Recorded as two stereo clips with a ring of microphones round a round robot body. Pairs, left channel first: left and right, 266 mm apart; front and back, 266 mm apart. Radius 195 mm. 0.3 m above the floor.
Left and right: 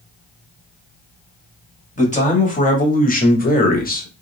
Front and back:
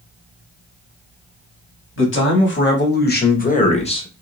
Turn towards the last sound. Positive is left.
turn(degrees=60)